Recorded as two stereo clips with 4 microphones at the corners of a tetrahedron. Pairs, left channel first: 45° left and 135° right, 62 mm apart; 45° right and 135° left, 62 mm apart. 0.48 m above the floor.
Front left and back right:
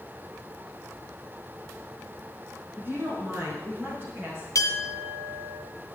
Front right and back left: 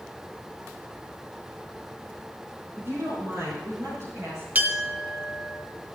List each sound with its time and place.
2.8 s a woman speaking: 170° left, 5 m; by 4.5 s 165° left, 6.5 m
4.5 s a clink: 80° left, 2 m